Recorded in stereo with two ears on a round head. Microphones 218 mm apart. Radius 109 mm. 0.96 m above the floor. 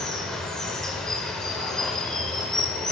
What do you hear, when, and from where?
0.0 s running water: centre (ahead or behind), 0.7 m